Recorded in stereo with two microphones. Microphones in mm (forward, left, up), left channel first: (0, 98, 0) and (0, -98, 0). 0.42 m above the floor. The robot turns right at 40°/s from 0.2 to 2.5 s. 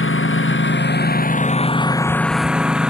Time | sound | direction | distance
0.0 | a lawn mower | 90° left | ?